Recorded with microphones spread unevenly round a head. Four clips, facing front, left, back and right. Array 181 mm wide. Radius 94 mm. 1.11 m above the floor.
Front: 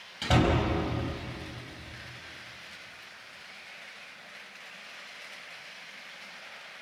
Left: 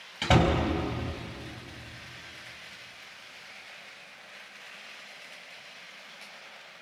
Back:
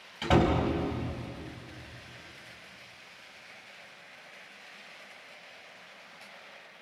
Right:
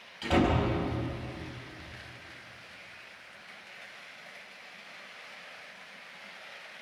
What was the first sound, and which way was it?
A door slam, 85° left.